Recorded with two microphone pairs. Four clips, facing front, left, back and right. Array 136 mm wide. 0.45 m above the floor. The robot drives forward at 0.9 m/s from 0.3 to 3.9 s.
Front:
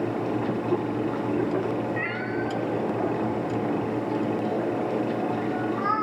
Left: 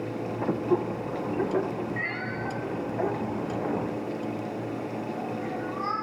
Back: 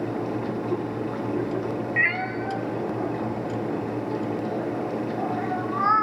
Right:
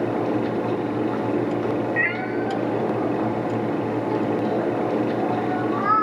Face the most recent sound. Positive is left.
turn(degrees=-170)